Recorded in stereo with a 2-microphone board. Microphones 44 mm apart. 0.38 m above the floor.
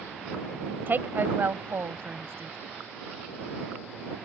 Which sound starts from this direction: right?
A woman speaking, at 0.9 s.